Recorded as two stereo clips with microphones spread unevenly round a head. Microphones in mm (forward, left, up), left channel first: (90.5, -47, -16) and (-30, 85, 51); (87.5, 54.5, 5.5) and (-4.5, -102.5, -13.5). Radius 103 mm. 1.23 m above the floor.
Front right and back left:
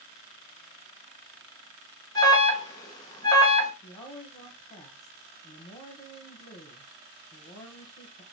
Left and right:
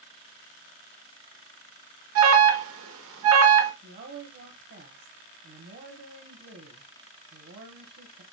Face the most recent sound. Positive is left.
turn(degrees=-110)